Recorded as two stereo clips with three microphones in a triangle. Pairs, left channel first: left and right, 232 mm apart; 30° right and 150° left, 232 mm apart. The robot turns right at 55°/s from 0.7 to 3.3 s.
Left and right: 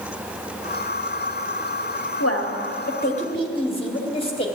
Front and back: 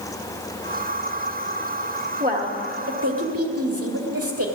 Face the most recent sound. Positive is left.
turn(degrees=155)